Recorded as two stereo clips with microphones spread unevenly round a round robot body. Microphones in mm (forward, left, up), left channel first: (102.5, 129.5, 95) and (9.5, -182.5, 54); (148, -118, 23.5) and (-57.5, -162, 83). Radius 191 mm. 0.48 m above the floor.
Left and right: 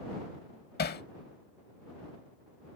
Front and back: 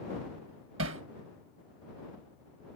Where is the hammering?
140° left.